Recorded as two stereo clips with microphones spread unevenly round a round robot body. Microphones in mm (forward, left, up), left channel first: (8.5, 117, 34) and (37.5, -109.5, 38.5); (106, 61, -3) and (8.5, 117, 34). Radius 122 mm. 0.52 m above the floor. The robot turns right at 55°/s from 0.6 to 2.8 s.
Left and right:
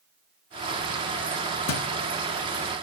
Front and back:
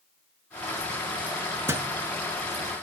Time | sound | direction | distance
1.7 | a thud | 85° left | 1.3 m